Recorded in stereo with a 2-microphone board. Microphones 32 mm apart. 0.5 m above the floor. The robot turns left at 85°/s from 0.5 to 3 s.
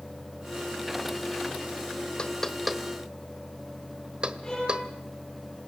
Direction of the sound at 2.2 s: 30° left (ahead or behind).